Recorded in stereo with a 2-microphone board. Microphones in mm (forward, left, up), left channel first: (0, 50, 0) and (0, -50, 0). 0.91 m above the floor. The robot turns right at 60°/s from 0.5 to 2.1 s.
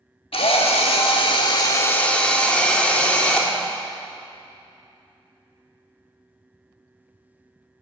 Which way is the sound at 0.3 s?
70° left.